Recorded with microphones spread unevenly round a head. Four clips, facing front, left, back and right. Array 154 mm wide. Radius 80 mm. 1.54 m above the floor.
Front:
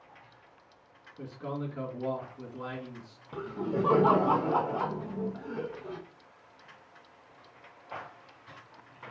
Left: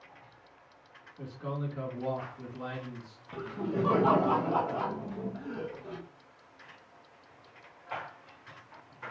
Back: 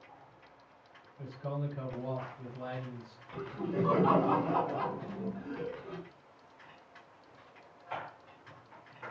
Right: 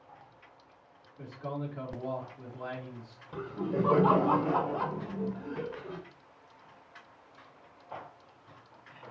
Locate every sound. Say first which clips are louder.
1.2 s a man speaking: even, front 2 dB; 20° left, 2.5 m
3.3 s laughter: right 1 dB, front 3 dB; 5° right, 1.3 m